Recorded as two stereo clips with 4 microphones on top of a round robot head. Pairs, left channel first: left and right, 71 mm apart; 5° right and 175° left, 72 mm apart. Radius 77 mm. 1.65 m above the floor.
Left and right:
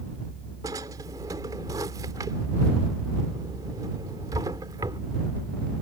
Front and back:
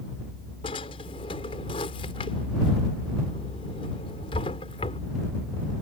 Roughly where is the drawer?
Ahead right.